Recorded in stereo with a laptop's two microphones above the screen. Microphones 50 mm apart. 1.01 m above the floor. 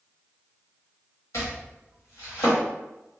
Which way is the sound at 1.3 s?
65° left (ahead or behind).